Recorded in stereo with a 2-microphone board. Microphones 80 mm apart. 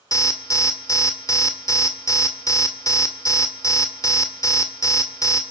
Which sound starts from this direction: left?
An alarm, at 0.1 s.